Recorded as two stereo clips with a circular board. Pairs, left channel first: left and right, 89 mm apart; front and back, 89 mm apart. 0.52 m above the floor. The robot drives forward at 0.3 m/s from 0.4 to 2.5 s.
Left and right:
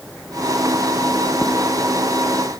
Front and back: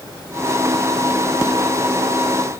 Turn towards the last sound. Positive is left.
No sound to turn to.